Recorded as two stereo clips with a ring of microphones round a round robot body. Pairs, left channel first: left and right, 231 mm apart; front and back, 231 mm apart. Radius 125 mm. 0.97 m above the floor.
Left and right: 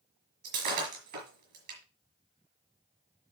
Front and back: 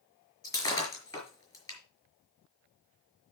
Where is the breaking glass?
75° right, 4.5 m.